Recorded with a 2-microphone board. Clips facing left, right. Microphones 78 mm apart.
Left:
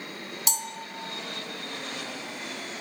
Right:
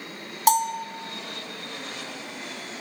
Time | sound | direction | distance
0.5 | a bell | 55° right (ahead or behind) | 1.8 m